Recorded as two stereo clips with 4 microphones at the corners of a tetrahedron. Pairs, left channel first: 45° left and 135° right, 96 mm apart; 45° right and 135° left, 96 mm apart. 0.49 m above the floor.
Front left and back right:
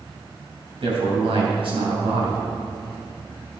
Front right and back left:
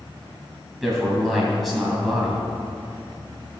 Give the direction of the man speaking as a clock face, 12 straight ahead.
4 o'clock.